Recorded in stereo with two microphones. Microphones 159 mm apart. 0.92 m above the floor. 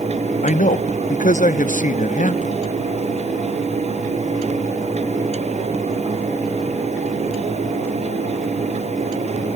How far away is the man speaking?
About 0.9 m.